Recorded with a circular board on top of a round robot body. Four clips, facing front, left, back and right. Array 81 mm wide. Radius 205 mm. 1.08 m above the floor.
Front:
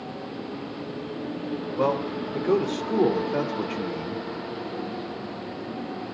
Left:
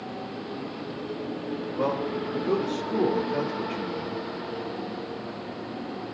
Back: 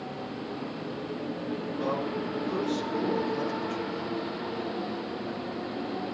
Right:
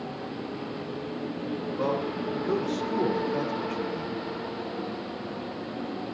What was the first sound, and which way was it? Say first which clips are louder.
A man speaking: left 2 dB, front 7 dB; 5° left.